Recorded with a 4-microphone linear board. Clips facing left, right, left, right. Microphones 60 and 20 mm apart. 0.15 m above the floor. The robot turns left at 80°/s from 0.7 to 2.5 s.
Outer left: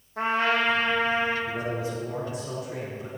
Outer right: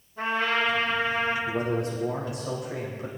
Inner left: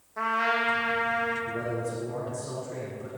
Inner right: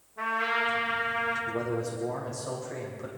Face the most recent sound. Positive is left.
turn(degrees=-115)